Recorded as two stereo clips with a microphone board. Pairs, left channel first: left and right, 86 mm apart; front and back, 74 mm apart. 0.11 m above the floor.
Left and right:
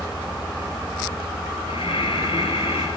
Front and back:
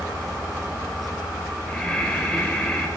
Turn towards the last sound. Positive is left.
turn(degrees=80)